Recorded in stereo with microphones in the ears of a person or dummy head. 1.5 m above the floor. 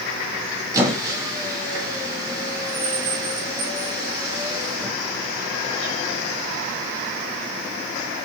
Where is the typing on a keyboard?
I don't hear typing on a keyboard.